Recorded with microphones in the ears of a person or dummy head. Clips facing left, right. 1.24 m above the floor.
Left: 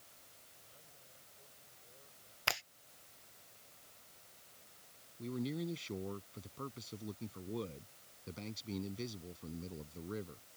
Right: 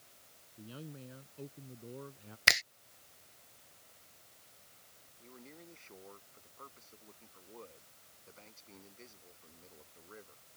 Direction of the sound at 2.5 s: 20° right (ahead or behind).